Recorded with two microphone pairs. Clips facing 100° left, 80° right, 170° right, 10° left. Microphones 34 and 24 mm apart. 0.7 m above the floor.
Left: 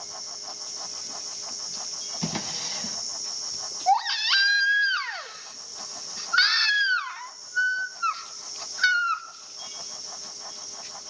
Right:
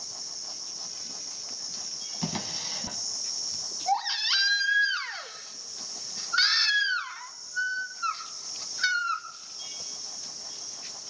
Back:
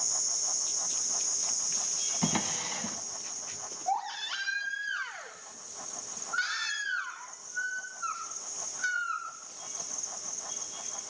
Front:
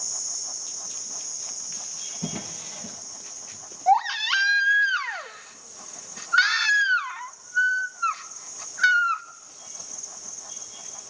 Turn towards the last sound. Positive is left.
turn(degrees=35)